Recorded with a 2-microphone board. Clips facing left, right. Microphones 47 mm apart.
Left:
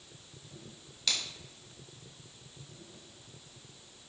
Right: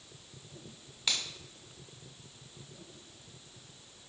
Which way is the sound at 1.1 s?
15° right (ahead or behind).